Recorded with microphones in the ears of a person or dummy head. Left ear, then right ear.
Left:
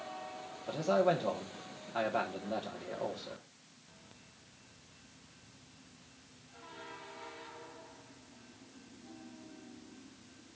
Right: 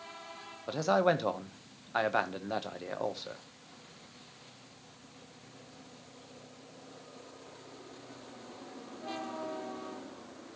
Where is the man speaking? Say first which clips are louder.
Right 2 dB; 60° right (ahead or behind), 1.0 m.